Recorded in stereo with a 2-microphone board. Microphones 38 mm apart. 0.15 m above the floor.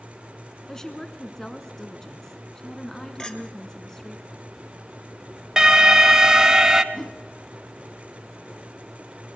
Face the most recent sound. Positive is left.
turn(degrees=5)  # may be behind; listen again after turning